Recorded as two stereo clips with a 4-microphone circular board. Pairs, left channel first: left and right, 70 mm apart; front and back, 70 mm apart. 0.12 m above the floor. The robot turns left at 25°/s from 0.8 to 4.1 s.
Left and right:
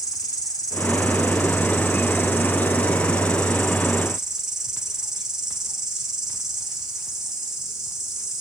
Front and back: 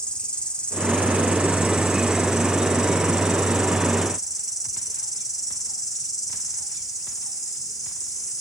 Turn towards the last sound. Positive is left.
turn(degrees=-5)